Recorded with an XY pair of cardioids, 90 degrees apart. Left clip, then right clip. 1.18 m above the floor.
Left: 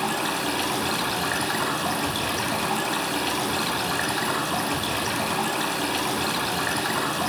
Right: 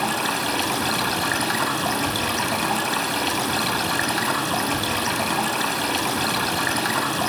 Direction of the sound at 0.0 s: 30° right.